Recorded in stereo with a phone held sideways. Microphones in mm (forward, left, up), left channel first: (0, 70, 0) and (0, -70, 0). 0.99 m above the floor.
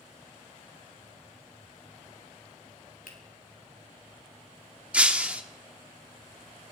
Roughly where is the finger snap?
Left.